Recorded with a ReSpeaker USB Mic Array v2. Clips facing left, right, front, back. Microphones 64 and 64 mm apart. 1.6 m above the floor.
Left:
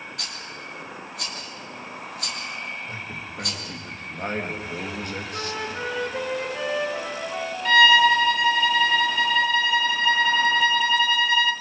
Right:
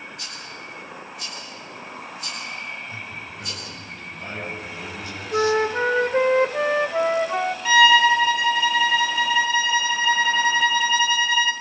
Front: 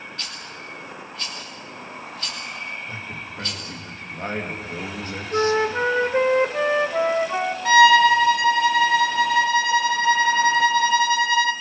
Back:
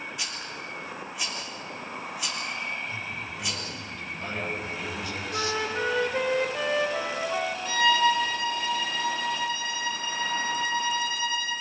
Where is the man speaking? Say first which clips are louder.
Even, front 1 dB; 50° left, 3 m.